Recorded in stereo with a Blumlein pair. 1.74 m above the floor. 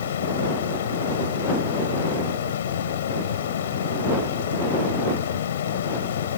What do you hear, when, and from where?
0.0 s a fan: 60° left